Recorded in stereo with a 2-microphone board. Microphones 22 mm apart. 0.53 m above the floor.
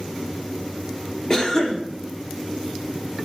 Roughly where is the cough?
Left.